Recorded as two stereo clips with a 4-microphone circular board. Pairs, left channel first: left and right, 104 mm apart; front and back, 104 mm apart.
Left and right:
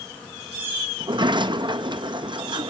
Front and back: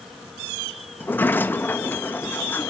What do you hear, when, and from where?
1.0 s a sliding door: 65° right, 0.8 m